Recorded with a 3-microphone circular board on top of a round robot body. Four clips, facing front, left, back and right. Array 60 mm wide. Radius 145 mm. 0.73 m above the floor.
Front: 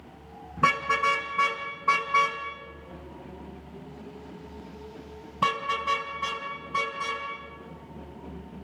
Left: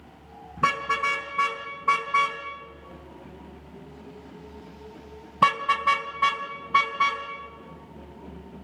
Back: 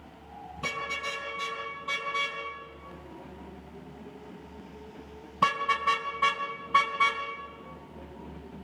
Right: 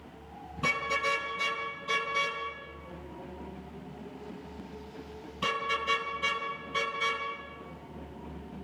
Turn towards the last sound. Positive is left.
turn(degrees=125)